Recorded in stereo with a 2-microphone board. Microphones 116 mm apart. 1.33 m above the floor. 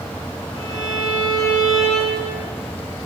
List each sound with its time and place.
0.6 s a violin: 35° left (ahead or behind), 8.5 m